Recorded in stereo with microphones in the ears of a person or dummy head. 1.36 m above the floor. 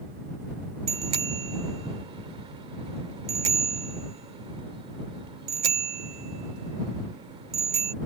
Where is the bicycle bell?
30° right (ahead or behind).